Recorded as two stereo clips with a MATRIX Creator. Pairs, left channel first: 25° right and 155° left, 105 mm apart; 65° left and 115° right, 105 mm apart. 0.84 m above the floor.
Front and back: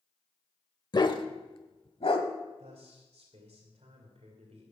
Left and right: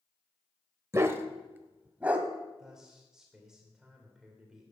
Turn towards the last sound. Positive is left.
turn(degrees=165)